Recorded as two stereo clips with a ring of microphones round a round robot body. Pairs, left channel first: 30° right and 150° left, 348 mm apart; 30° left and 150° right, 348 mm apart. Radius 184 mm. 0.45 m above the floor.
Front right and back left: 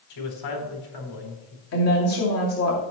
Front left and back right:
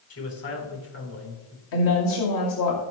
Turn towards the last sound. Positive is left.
turn(degrees=15)